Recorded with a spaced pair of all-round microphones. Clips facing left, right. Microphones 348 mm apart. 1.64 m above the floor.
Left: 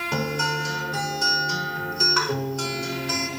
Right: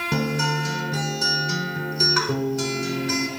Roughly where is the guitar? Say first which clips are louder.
Right 3 dB; right.